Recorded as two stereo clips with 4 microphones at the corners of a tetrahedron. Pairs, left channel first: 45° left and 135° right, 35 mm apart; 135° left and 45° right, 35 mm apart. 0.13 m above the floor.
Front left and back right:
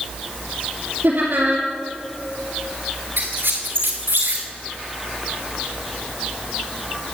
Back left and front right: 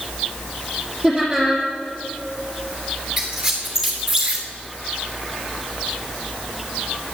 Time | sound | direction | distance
1.0 | laughter | 140° right | 2.5 m
3.2 | a squeak | 125° right | 2.5 m